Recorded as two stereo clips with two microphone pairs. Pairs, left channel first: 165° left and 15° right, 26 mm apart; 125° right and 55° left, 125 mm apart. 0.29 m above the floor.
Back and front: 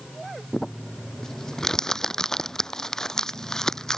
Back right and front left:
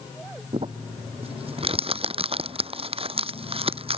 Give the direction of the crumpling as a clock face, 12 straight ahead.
9 o'clock.